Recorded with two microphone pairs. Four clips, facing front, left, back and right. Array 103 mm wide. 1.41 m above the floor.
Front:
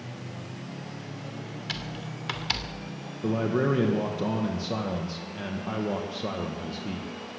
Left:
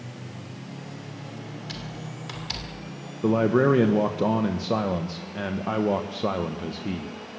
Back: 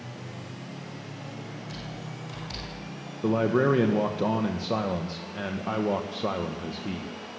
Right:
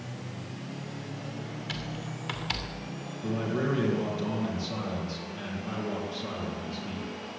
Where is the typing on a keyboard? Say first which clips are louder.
Even, front 2 dB; 15° right, 2.5 m.